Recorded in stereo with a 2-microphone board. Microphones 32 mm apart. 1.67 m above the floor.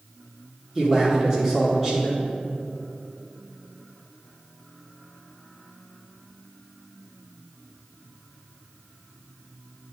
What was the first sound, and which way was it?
A man speaking, 10° right (ahead or behind).